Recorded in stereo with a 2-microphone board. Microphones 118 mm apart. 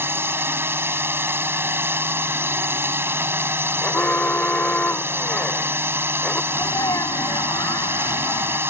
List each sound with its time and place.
0.0 s a drone: 20° right (ahead or behind)
3.8 s an alarm: 15° left (ahead or behind)
6.5 s a sneeze: 30° left (ahead or behind)